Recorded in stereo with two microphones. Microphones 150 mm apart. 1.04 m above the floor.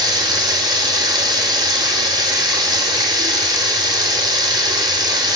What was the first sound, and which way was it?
Running water, 25° right (ahead or behind).